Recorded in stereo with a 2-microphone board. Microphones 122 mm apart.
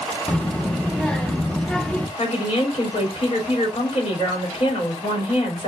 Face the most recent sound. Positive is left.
turn(degrees=65)  # may be behind; listen again after turning